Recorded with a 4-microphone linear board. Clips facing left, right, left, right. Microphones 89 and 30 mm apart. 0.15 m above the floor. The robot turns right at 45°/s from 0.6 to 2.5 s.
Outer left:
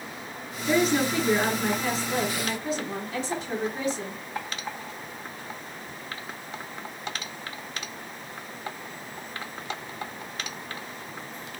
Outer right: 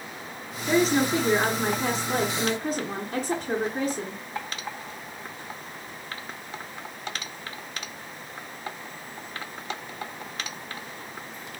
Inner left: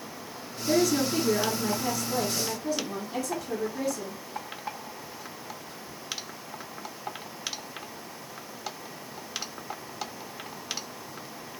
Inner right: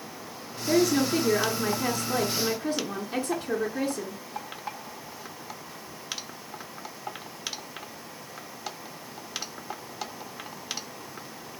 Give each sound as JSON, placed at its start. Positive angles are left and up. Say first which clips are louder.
{"t": 0.7, "sound": "a woman speaking", "louder": "outer right 1 dB, inner right 1 dB", "azimuth_deg": 170, "distance_m": 2.0}